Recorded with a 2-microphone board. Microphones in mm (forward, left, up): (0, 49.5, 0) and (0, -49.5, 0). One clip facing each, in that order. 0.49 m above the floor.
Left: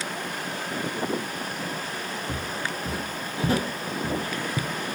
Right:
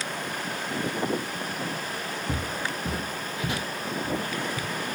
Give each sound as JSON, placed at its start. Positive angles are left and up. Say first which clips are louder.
{"t": 2.3, "sound": "footsteps", "louder": "right 2 dB", "side_deg": -25, "distance_m": 1.2}